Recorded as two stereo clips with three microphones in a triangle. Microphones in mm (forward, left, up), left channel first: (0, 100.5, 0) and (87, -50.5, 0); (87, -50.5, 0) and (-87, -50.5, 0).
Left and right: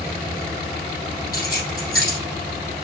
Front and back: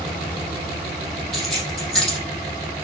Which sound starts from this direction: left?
Keys jangling, at 1.3 s.